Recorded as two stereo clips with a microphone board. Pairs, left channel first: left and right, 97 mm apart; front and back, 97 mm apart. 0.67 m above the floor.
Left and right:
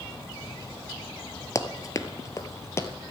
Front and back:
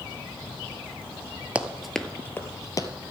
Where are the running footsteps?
115° left, 0.7 m; by 2.9 s 35° left, 1.0 m.